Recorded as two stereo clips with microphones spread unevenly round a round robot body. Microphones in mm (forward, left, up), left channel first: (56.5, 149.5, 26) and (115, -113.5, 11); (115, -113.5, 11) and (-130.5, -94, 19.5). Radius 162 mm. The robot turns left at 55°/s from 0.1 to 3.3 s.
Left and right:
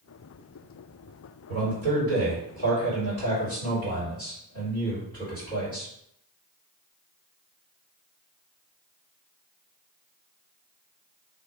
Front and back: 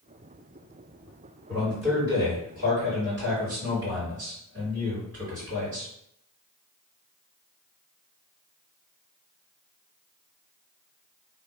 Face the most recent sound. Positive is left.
turn(degrees=175)